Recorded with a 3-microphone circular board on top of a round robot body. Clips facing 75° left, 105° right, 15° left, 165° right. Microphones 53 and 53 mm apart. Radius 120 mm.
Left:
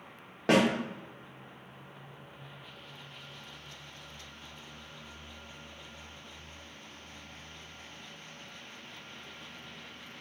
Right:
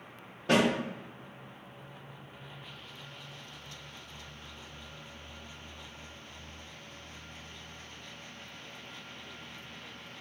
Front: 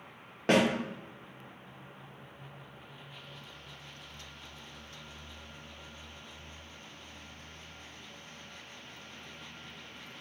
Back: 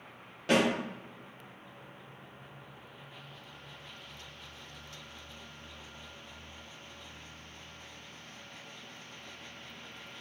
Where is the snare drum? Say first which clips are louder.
Left 1 dB, front 1 dB; 65° left, 1.7 m.